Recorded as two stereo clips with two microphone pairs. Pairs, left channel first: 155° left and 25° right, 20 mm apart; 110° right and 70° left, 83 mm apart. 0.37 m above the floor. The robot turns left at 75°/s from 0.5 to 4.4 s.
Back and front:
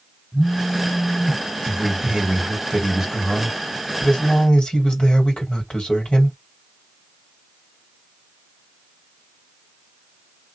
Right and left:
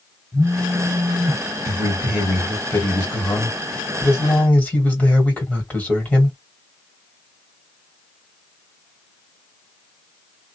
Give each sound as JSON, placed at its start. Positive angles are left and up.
{"t": 0.3, "sound": "a phone buzzing", "azimuth_deg": 175, "distance_m": 1.2}
{"t": 1.6, "sound": "a man speaking", "azimuth_deg": 25, "distance_m": 1.8}